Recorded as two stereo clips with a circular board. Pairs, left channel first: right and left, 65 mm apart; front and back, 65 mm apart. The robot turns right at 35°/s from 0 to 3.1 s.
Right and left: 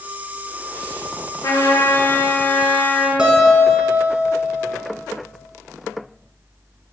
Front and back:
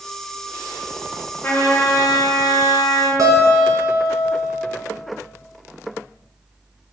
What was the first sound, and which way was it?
A trumpet, 60° right.